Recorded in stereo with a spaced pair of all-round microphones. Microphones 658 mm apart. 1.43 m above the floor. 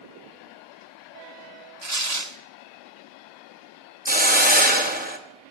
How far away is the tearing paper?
About 0.8 m.